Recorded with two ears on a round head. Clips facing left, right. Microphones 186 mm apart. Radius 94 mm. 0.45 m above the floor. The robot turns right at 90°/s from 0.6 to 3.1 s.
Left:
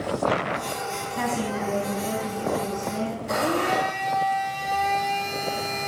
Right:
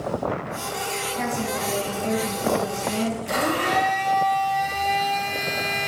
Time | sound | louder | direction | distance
1.2 | a woman speaking | left 1 dB | 115° left | 3 m
3.3 | a blender | even | 40° right (ahead or behind) | 7.5 m